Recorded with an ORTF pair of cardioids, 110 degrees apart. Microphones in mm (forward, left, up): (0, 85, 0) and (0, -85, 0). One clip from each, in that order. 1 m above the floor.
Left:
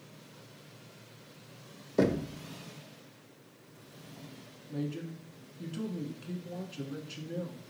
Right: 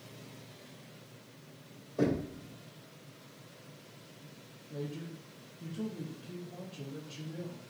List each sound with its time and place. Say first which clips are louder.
2.0 s knocking: left 3 dB; 65° left, 0.8 m
4.7 s a man speaking: left 3 dB; 65° left, 1.5 m